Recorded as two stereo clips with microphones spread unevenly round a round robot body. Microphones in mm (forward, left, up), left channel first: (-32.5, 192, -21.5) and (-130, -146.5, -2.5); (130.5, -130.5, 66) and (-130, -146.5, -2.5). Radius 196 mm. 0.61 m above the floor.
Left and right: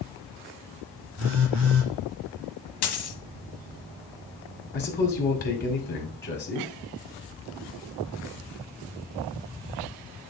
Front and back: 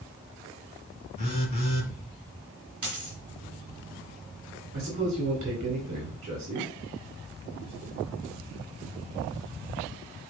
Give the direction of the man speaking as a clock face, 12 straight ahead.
8 o'clock.